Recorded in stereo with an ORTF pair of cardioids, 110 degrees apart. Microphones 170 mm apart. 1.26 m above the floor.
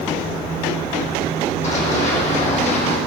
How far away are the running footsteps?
About 4 m.